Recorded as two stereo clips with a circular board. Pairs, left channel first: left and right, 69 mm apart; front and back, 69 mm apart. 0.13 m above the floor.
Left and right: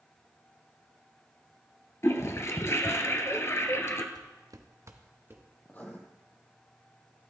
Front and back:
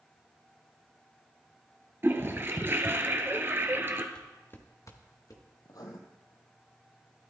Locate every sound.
2.0 s a toilet flushing: 130° left, 0.9 m
4.2 s footsteps: 80° right, 1.3 m; by 5.4 s 30° right, 2 m
5.7 s writing: 25° left, 1.3 m